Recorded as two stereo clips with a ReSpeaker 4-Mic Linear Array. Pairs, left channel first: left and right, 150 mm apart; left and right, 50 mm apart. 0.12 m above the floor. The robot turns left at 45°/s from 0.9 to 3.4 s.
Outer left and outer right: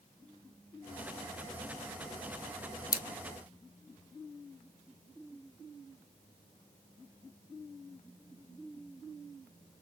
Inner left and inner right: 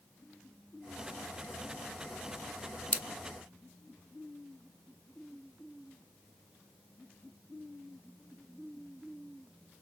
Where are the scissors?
25° left (ahead or behind), 0.9 m; by 3.0 s 30° left (ahead or behind), 0.9 m.